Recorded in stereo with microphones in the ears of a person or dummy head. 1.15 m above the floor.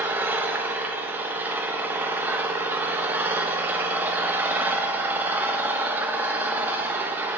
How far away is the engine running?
About 0.9 m.